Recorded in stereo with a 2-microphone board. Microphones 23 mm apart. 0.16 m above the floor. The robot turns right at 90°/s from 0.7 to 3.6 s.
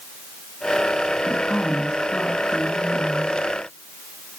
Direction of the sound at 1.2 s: 10° right.